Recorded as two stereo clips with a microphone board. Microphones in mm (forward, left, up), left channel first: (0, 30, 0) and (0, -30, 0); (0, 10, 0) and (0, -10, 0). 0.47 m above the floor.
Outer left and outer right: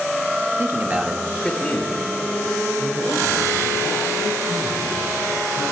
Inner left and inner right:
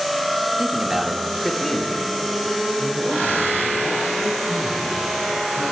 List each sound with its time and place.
0.6 s a man speaking: 45° right (ahead or behind), 1.0 m; by 5.6 s 65° left (ahead or behind), 4.5 m